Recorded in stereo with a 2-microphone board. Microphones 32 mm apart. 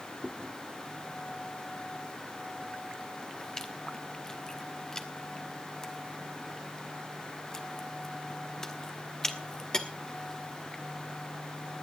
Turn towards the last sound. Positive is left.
turn(degrees=20)  # may be behind; listen again after turning